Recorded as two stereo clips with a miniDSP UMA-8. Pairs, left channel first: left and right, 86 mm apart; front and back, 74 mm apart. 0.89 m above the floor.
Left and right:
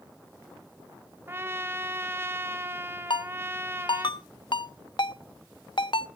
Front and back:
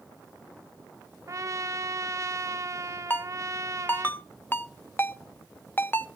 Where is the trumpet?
145° right, 1.0 m.